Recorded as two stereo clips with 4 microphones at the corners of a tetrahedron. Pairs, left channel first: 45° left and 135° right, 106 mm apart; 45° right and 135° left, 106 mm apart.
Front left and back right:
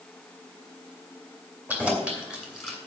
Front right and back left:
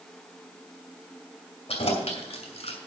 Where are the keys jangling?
60° right, 2.5 m; by 2.8 s 45° right, 2.5 m.